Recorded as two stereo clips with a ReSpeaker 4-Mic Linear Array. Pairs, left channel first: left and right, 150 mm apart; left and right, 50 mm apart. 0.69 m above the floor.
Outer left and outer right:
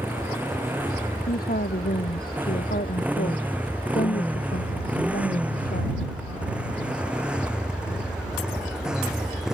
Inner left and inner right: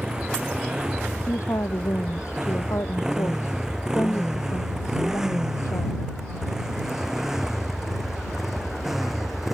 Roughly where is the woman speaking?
Left.